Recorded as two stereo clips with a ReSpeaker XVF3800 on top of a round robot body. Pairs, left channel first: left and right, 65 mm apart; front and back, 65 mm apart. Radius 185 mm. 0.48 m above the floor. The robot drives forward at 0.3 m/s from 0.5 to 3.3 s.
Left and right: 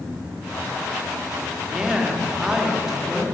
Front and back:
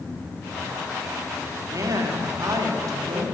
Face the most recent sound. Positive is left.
turn(degrees=-170)